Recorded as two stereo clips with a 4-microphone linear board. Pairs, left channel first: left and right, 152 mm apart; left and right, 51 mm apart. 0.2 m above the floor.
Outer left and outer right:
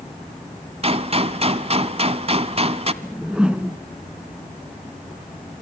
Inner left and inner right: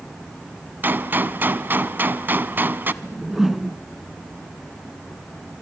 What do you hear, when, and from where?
0.8 s a gunshot: 40° right (ahead or behind), 0.9 m
3.0 s a whoosh: 5° right (ahead or behind), 0.9 m